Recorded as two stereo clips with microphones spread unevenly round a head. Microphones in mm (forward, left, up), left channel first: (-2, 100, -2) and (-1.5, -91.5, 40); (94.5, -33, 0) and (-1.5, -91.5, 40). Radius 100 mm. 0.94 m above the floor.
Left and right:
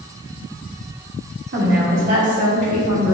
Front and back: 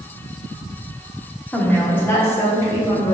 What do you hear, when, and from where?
1.5 s a woman speaking: 45° right, 1.7 m; by 3.1 s 30° right, 3 m